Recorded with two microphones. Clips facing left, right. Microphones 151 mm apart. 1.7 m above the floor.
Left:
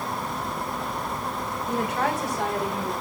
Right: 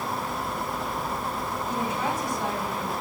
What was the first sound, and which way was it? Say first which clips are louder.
A woman speaking: left 4 dB; 60° left (ahead or behind).